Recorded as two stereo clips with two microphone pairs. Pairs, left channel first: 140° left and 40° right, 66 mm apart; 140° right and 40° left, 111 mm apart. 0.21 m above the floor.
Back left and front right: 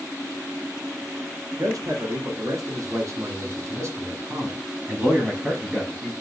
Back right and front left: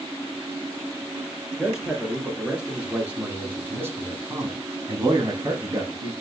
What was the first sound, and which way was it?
A man speaking, 40° right.